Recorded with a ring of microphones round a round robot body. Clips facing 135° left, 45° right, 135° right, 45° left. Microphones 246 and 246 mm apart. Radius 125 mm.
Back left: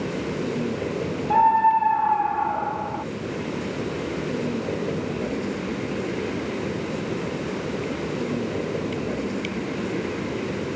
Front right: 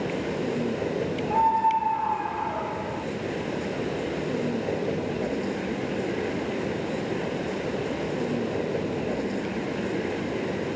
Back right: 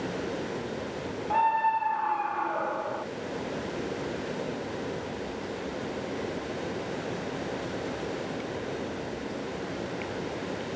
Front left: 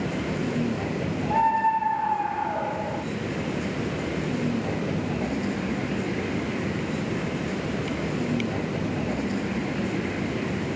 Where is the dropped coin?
No dropped coin in this recording.